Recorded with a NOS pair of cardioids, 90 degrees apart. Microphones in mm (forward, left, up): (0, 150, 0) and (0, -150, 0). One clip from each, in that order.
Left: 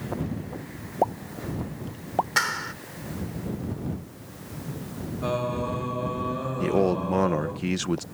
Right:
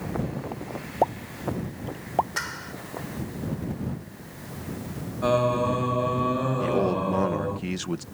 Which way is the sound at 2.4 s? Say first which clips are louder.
Left 7 dB; 50° left.